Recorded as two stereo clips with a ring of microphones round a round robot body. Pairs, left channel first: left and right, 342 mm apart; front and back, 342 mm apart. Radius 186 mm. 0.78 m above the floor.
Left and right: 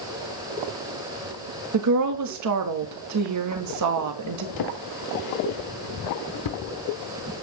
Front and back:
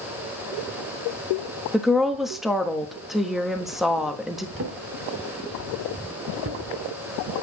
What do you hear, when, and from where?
1.7 s a woman speaking: 90° right, 1.4 m
4.6 s a drawer: 120° left, 1.0 m